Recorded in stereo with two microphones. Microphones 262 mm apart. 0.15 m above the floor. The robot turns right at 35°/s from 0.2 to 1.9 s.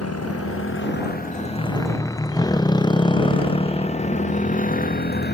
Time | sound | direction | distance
0.0 | a motorcycle | 65° left (ahead or behind) | ?